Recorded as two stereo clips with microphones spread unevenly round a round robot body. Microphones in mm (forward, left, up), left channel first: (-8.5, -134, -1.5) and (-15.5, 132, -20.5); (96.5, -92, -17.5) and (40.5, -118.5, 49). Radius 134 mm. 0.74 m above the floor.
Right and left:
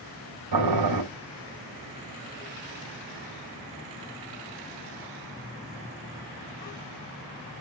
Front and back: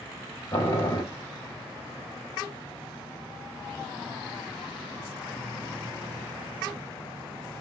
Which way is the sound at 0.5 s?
75° left.